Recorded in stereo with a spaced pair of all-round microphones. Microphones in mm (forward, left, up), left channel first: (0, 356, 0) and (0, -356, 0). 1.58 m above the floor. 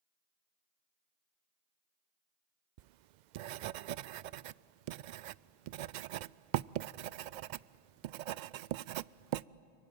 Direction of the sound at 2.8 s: 85° right.